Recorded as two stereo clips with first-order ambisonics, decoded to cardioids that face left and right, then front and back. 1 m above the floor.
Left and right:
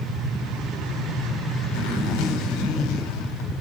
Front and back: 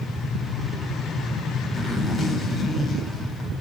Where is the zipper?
80° left, 4 m.